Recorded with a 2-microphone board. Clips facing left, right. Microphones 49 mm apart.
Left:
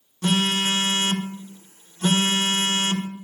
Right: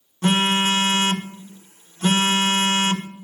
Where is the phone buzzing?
30° right (ahead or behind), 0.9 m.